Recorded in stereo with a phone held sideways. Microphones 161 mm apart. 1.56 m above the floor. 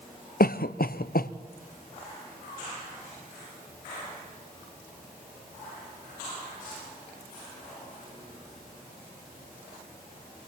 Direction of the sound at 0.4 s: 70° left (ahead or behind).